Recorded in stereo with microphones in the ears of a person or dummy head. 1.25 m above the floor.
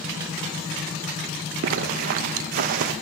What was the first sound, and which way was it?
A zipper, 55° right (ahead or behind).